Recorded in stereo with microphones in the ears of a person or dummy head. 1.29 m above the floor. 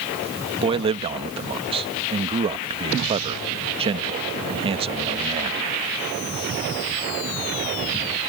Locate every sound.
0.6 s a man speaking: 30° right (ahead or behind)